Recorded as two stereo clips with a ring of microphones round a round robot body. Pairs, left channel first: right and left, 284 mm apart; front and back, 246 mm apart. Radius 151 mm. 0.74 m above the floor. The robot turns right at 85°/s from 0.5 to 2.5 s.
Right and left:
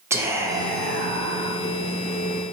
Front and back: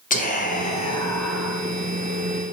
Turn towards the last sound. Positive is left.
turn(degrees=-175)